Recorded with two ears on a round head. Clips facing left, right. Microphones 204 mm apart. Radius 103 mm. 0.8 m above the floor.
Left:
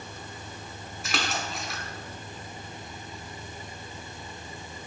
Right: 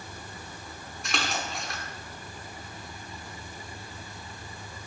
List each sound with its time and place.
1.0 s a splash: centre (ahead or behind), 0.9 m